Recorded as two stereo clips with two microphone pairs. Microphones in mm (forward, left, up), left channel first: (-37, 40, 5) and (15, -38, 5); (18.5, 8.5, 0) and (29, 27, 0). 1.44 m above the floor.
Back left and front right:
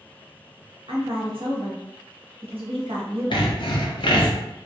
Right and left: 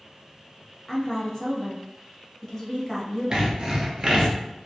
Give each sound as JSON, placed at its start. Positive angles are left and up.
{"t": 0.9, "sound": "a woman speaking", "azimuth_deg": -50, "distance_m": 0.8}
{"t": 3.3, "sound": "sawing", "azimuth_deg": 105, "distance_m": 0.5}